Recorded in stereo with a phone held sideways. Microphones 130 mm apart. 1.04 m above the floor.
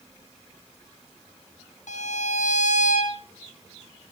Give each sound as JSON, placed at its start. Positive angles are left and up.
{"t": 1.9, "sound": "a violin", "side_deg": 80, "distance_m": 3.5}